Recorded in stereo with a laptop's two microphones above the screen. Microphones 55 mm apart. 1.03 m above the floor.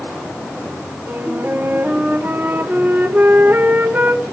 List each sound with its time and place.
1.1 s a flute: 35° right (ahead or behind), 0.7 m